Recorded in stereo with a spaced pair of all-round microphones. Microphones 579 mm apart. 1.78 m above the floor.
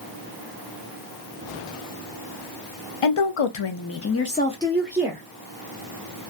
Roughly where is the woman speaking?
Left.